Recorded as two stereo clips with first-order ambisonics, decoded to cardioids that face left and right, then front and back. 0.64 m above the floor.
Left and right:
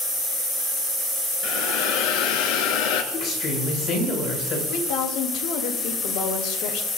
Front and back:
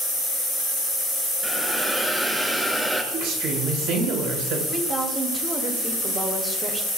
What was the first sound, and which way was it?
A hiss, 95° left.